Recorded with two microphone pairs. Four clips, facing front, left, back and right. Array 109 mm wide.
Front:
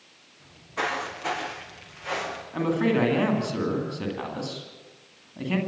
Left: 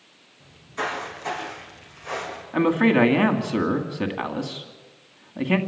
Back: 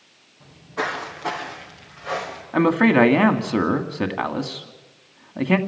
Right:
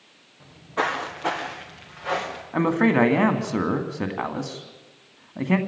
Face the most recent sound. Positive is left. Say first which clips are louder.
# left 1 dB, back 7 dB
turn(degrees=-165)